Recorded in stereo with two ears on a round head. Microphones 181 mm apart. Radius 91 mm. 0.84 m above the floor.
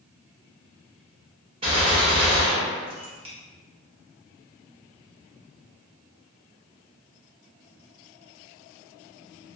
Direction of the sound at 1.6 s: 30° right (ahead or behind).